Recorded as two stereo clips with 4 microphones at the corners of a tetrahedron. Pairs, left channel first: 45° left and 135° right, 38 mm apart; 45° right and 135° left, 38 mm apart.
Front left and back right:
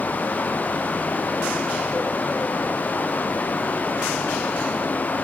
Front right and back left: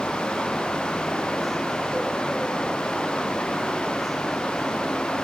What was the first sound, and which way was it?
Only background noise.